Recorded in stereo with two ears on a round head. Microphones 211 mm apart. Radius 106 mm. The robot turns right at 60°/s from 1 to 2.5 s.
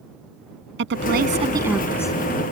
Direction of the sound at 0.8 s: 50° right.